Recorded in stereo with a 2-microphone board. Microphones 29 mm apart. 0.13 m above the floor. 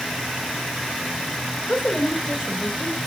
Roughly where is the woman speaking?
Left.